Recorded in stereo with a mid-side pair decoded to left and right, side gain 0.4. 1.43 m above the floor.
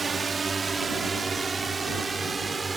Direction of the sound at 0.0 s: 40° right.